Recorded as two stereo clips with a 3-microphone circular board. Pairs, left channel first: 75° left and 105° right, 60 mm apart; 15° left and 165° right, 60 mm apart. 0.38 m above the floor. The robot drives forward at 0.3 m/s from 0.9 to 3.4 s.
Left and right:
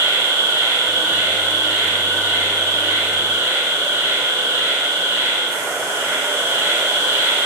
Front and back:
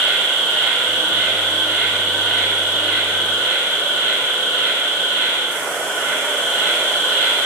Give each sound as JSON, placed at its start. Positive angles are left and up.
{"t": 0.0, "sound": "an insect", "azimuth_deg": -105, "distance_m": 5.0}